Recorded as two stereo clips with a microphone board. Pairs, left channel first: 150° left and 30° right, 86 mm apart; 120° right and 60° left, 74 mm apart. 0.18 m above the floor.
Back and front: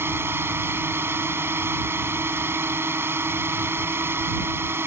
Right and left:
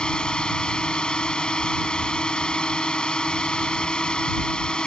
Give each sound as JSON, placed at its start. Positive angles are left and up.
{"t": 0.0, "sound": "a drone", "azimuth_deg": -55}